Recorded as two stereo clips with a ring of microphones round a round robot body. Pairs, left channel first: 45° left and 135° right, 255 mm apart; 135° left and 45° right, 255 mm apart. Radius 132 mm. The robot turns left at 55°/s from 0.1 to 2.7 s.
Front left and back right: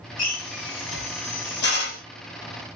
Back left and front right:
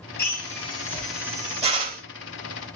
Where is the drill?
95° left, 2.0 m; by 2.0 s 5° right, 2.0 m.